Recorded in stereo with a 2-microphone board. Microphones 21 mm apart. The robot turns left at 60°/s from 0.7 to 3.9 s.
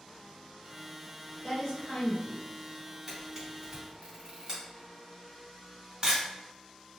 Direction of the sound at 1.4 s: 80° left.